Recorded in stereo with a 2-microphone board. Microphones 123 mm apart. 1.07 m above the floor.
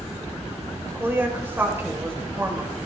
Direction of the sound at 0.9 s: 20° right (ahead or behind).